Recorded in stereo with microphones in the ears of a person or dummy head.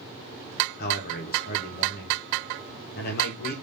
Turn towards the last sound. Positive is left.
turn(degrees=50)  # may be behind; listen again after turning